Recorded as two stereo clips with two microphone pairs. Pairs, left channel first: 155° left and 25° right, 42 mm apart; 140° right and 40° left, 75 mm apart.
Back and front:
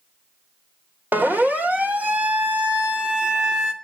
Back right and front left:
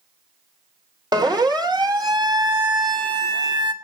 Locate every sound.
1.1 s a siren: 15° left, 3.5 m; by 3.7 s 45° left, 2.5 m